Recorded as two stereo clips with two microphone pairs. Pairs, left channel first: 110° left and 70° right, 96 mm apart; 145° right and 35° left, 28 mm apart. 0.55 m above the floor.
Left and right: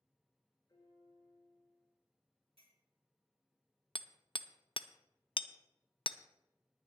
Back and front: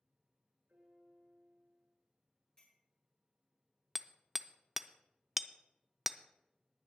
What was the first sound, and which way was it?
A piano, 60° left.